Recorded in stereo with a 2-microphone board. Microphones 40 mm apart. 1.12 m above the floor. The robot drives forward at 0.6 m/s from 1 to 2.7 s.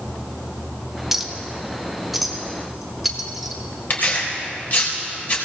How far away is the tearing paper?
About 3 m.